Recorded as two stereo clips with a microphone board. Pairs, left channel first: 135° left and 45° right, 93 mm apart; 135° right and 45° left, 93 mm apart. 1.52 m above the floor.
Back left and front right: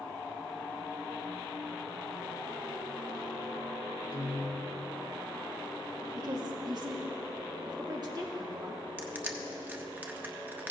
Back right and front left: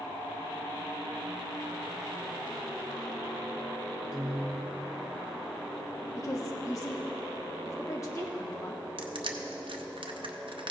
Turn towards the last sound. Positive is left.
turn(degrees=25)